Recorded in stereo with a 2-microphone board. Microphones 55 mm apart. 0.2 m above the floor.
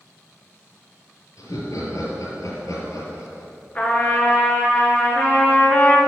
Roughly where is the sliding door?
No sliding door in this recording.